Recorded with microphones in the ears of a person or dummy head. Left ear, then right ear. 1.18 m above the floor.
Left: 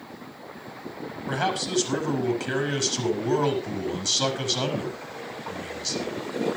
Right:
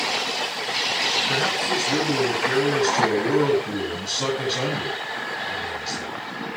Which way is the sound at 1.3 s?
85° left.